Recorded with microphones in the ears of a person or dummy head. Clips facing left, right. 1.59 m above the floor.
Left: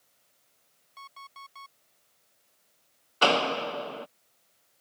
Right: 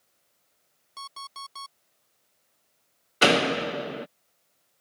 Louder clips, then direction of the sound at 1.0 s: Right 6 dB; 60° right (ahead or behind).